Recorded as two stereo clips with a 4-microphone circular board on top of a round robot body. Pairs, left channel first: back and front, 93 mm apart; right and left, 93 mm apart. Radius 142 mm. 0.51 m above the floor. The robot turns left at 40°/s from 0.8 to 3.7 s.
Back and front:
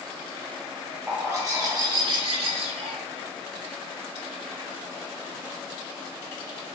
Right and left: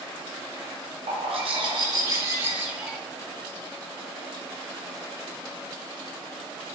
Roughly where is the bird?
Left.